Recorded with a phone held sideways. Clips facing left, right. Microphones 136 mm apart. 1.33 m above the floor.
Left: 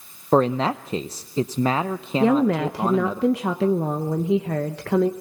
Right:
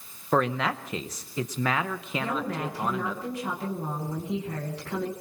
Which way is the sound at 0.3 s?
30° left (ahead or behind).